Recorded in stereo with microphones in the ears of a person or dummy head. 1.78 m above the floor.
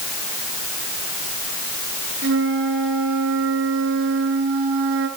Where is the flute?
70° right (ahead or behind), 5.5 m.